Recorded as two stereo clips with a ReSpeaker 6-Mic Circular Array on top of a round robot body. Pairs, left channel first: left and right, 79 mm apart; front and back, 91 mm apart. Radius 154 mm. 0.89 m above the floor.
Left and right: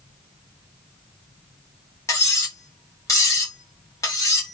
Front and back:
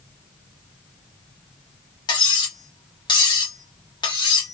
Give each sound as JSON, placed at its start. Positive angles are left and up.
{"t": 2.1, "sound": "cutlery clinking", "azimuth_deg": 40, "distance_m": 1.8}